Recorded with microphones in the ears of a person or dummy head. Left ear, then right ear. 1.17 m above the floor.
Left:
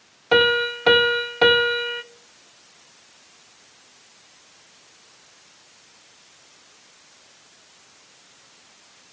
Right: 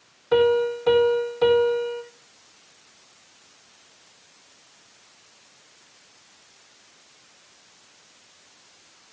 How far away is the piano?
About 1.0 m.